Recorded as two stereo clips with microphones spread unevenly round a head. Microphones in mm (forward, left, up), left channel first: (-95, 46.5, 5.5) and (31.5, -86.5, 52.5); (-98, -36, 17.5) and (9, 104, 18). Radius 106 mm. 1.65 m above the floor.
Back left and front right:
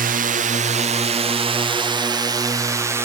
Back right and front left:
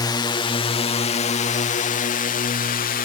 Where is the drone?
75° right; by 3.0 s 130° right.